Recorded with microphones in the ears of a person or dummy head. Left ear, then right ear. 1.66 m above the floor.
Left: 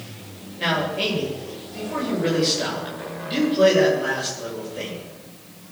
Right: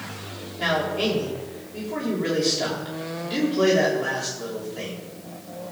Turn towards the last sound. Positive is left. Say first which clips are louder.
# left 1 dB
turn(degrees=5)  # may be behind; listen again after turning